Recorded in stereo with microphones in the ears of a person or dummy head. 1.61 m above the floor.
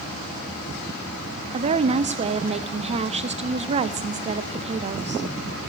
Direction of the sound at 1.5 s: 35° right (ahead or behind).